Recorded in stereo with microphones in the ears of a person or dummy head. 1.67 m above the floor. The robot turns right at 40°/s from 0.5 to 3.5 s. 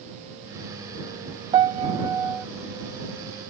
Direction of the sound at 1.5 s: 20° right (ahead or behind).